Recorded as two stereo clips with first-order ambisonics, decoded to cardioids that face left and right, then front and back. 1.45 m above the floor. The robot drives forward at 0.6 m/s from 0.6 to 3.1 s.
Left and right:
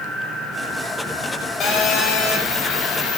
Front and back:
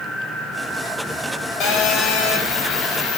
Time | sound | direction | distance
1.6 | a phone buzzing | 35° left | 4 m